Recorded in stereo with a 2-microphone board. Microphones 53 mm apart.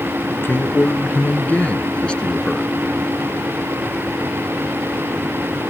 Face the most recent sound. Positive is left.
turn(degrees=10)  # may be behind; listen again after turning